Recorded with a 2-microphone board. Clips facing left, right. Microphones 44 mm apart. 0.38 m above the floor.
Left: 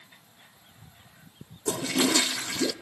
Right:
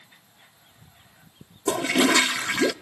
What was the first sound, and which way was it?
A toilet flushing, 55° right (ahead or behind).